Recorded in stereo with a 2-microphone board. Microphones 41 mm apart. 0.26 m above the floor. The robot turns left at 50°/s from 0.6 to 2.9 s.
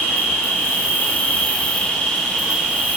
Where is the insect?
85° left, 0.7 m; by 3.0 s 30° right, 0.7 m.